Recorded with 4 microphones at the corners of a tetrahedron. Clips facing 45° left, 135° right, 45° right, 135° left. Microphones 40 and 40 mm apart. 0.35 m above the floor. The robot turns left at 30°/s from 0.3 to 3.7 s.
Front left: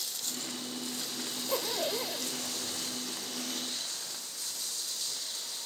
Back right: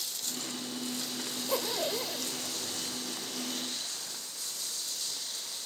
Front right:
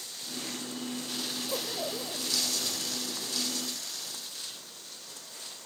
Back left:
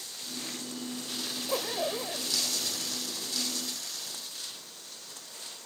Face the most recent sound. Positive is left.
turn(degrees=80)